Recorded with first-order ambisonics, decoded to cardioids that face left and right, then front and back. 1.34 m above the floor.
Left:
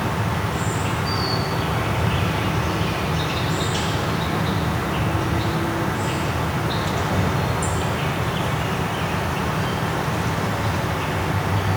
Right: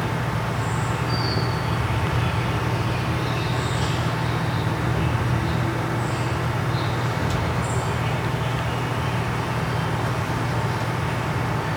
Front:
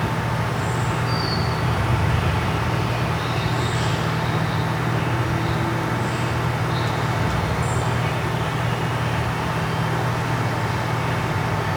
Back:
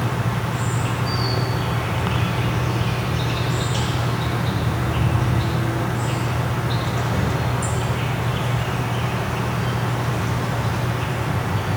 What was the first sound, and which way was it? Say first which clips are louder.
An insect: left 2 dB, front 1 dB; 125° left.